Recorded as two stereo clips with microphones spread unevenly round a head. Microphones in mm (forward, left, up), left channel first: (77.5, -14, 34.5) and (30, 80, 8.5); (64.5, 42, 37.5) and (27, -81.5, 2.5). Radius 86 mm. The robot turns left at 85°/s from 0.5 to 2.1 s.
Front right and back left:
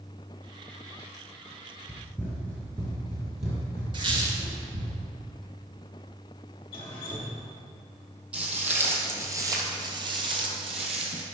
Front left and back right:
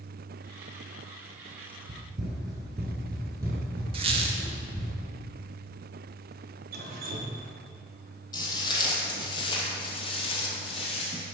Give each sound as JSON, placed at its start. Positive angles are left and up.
{"t": 1.9, "sound": "running footsteps", "azimuth_deg": -115, "distance_m": 1.7}
{"t": 3.9, "sound": "a squeak", "azimuth_deg": -175, "distance_m": 0.6}
{"t": 6.7, "sound": "dripping", "azimuth_deg": -105, "distance_m": 1.0}
{"t": 8.3, "sound": "footsteps", "azimuth_deg": 30, "distance_m": 2.0}